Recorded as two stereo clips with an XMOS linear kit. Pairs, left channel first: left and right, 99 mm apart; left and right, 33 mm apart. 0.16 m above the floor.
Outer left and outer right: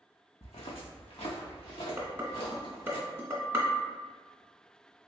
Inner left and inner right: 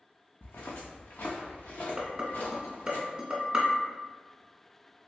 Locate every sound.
0.4 s footsteps: 85° left, 0.7 m; by 3.0 s 70° left (ahead or behind), 2.5 m
2.0 s dishes clattering: 25° right (ahead or behind), 0.8 m